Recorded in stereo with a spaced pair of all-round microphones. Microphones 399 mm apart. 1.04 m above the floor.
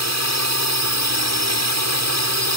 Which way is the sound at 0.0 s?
40° right (ahead or behind).